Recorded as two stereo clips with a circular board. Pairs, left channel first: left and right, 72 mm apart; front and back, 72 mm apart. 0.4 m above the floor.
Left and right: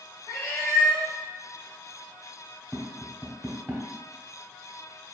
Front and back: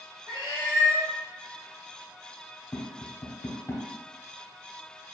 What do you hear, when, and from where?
0.3 s a cat meowing: 150° left, 1.8 m
2.7 s tapping: 30° right, 1.1 m